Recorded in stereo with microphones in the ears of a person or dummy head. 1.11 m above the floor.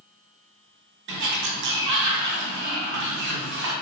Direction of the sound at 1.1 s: 65° right (ahead or behind).